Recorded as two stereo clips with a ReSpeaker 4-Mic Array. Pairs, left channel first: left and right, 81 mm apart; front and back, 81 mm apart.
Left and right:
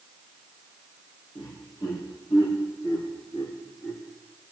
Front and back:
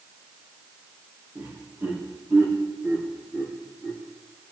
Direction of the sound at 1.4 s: 110° left.